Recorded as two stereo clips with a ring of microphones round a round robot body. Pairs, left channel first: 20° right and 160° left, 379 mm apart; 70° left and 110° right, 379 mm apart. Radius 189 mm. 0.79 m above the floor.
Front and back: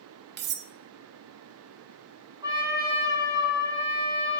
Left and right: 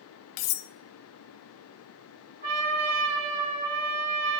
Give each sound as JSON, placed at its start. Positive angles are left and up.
{"t": 0.4, "sound": "cutlery clinking", "azimuth_deg": 95, "distance_m": 0.6}
{"t": 2.4, "sound": "a trumpet", "azimuth_deg": -120, "distance_m": 5.5}